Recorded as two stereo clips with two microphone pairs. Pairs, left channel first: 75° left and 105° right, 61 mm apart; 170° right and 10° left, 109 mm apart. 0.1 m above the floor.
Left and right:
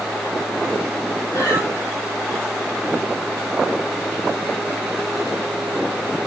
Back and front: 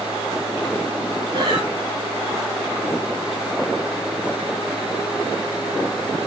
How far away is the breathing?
About 2.5 m.